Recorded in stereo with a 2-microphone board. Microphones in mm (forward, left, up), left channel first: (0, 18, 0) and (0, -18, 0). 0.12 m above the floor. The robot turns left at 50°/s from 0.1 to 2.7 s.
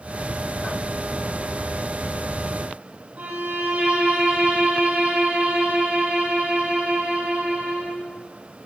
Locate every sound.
3.2 s a violin: 50° right (ahead or behind), 3.5 m